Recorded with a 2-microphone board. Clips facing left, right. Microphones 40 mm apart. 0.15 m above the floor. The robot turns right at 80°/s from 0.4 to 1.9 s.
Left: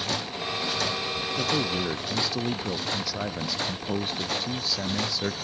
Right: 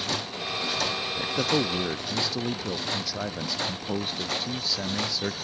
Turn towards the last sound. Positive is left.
turn(degrees=0)